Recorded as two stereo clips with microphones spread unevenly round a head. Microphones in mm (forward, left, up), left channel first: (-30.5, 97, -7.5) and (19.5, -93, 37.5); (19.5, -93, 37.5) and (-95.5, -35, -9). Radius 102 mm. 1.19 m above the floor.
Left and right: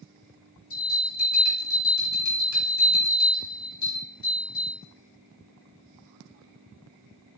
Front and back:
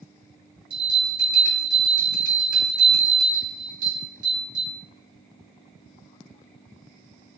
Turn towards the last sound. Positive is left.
turn(degrees=90)